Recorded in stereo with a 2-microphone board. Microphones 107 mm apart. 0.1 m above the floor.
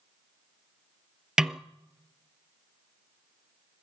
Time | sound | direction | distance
1.4 | a snare drum | 5° right (ahead or behind) | 0.7 m